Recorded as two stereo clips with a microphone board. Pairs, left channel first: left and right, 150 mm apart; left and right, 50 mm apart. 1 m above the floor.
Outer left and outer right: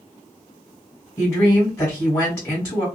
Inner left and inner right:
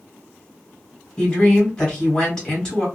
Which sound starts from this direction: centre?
A woman speaking, at 1.2 s.